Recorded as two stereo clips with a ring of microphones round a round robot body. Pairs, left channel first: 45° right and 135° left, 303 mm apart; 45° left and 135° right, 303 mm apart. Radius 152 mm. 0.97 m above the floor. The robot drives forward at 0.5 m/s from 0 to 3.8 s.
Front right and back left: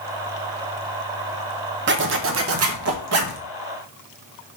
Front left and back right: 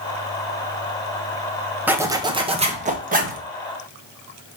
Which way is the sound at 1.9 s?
145° left.